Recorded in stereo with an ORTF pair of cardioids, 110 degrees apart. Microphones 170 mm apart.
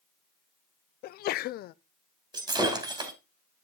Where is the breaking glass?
25° right, 3 m.